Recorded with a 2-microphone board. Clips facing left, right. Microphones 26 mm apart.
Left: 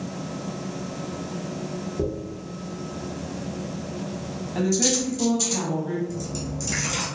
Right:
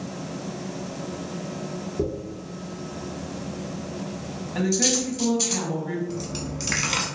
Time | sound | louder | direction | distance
2.0 | a dropped coin | right 1 dB | 25° right (ahead or behind) | 1.8 m
4.5 | a woman speaking | even | 10° right (ahead or behind) | 1.1 m
6.1 | a dropped coin | even | 55° right (ahead or behind) | 0.7 m